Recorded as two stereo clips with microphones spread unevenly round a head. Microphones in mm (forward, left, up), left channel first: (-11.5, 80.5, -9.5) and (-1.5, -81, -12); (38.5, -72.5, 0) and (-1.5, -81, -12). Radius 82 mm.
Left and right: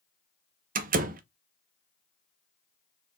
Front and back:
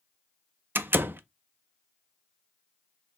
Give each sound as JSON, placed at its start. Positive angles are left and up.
{"t": 0.8, "sound": "a door slam", "azimuth_deg": -125, "distance_m": 0.6}